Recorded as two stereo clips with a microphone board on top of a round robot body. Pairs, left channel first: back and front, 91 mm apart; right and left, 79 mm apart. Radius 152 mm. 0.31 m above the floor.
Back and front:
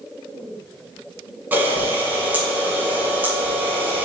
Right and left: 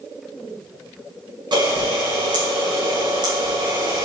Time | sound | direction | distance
1.5 | a camera shutter | 70° left | 4.5 m